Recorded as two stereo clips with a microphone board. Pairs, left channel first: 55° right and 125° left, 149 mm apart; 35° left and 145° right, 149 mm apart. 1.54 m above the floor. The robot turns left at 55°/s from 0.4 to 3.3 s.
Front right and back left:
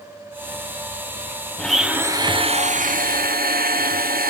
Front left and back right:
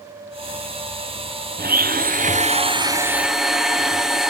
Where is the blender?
140° right, 0.9 m; by 4.3 s 125° left, 0.9 m.